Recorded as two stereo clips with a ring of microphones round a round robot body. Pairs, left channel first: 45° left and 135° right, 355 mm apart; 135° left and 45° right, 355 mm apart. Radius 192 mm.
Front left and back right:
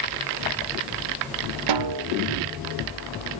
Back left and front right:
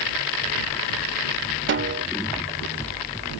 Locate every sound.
1.7 s a snare drum: 105° right